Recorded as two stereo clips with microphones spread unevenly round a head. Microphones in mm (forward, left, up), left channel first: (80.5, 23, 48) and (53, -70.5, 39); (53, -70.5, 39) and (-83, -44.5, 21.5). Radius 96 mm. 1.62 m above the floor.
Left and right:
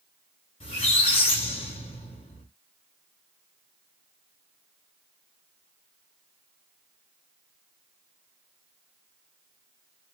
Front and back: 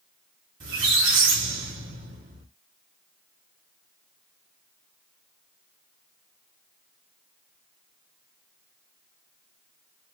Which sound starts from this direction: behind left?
A squeak, at 0.6 s.